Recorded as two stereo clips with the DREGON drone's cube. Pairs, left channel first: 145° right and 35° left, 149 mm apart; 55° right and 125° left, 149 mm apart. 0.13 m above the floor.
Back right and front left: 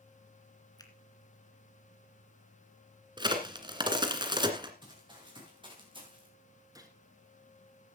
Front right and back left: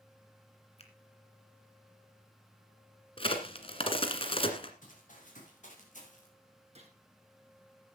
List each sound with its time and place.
0.8 s a finger snap: 90° right, 2 m
3.2 s a crack: 15° right, 1.8 m
4.8 s running footsteps: 25° right, 7.5 m; by 6.3 s 20° right, 5.5 m
6.8 s a gunshot: 95° left, 2.5 m